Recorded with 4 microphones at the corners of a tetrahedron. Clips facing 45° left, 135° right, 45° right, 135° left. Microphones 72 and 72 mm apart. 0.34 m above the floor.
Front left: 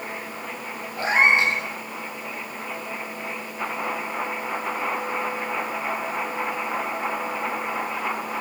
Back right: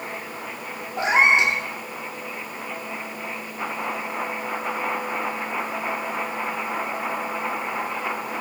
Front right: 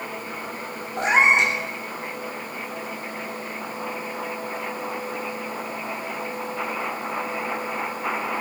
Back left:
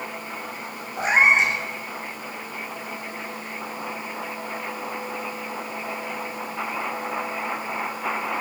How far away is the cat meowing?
About 6.5 m.